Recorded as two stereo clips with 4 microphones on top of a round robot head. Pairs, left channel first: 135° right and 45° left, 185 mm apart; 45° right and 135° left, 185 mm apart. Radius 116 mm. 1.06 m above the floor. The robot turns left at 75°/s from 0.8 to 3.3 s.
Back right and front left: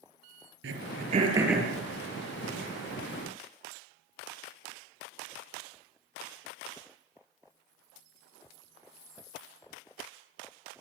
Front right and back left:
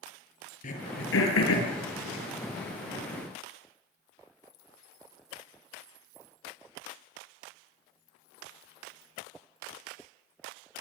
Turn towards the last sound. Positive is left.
turn(degrees=-175)